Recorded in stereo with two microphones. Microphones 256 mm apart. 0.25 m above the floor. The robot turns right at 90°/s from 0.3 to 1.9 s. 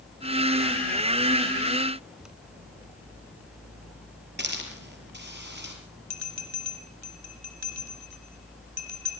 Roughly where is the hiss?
Right.